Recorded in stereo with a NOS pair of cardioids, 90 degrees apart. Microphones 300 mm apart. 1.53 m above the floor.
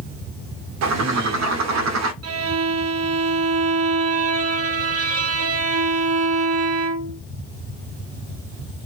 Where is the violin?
55° right, 0.6 m.